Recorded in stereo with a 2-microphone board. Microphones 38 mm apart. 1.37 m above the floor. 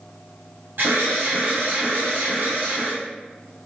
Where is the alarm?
75° right (ahead or behind), 1.8 m.